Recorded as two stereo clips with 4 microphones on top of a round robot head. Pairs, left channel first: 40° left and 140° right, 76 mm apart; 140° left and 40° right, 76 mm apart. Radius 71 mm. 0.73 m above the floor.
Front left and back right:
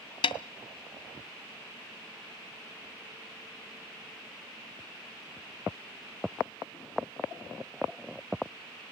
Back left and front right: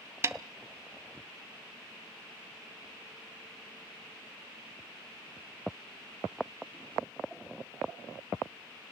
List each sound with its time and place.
0.2 s a snare drum: 20° left, 0.9 m